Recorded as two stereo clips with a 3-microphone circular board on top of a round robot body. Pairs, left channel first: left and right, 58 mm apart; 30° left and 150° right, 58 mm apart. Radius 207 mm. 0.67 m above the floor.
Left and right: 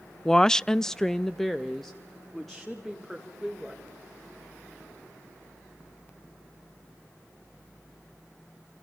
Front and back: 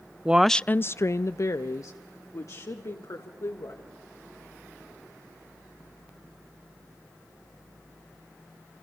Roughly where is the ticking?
No ticking in this recording.